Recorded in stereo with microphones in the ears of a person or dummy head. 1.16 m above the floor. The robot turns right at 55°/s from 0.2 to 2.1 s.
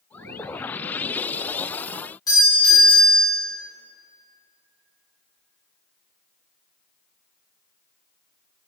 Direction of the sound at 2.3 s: 20° left (ahead or behind).